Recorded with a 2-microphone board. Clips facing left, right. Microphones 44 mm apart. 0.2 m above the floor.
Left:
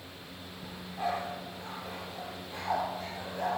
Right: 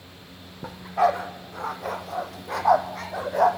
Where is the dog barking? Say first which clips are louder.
Right 13 dB; 80° right, 2.5 m.